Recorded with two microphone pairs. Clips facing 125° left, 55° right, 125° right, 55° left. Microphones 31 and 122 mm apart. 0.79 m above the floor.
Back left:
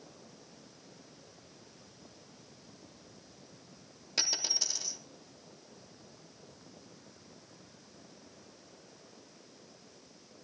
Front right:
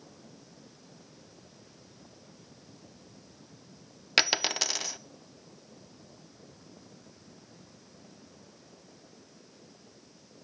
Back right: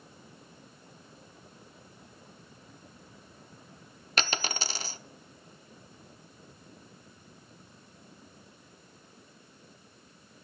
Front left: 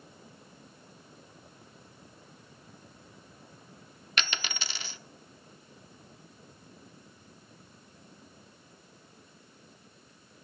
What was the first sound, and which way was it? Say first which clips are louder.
A dropped coin: front right 9 dB, back right 4 dB; 70° right.